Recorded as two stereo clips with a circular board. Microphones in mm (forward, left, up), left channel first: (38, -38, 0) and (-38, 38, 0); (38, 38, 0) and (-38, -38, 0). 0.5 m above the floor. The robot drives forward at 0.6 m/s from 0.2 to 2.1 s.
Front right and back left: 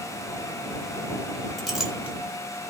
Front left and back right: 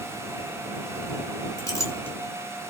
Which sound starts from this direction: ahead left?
A clink, at 1.6 s.